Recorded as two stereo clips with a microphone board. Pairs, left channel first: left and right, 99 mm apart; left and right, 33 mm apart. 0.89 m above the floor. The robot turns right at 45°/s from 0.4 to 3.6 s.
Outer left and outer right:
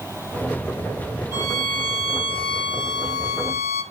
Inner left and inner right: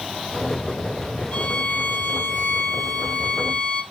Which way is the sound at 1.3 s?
40° left.